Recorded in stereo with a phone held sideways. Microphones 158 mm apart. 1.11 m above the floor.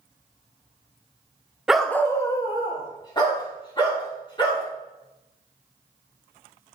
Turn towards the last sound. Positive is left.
turn(degrees=30)  # may be behind; listen again after turning